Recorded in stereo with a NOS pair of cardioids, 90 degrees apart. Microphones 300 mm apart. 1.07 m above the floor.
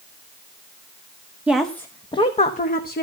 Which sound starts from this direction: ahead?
A woman speaking, at 1.5 s.